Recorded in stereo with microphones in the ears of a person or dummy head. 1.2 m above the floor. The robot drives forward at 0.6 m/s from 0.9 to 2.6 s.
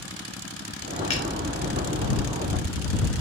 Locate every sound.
1.1 s a finger snap: 30° left (ahead or behind), 1.1 m